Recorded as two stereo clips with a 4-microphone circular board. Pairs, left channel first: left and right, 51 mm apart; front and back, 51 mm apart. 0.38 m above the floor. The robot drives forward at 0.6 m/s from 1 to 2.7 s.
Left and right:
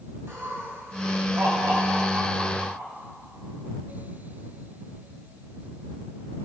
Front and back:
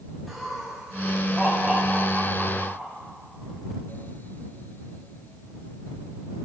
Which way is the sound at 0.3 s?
90° right.